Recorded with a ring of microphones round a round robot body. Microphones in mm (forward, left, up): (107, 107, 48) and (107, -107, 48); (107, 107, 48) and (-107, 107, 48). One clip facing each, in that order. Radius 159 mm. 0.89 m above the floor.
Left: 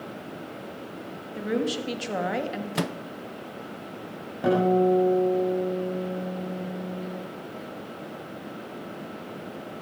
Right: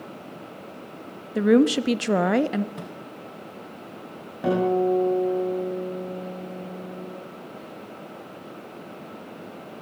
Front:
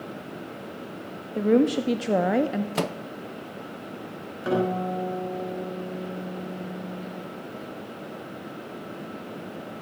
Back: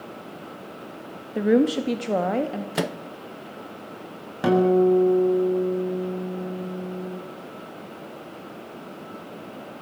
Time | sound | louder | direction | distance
1.4 | a woman speaking | right 10 dB, back 1 dB | 105° right | 1.5 m
2.8 | a microwave | left 8 dB, back 1 dB | 100° left | 0.8 m
4.4 | a guitar | left 1 dB, back 9 dB | straight behind | 8 m